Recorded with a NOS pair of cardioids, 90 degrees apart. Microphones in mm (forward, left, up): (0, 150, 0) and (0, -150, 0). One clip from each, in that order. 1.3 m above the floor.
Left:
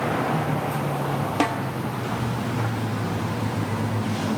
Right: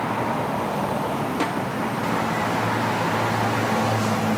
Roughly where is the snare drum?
Ahead left.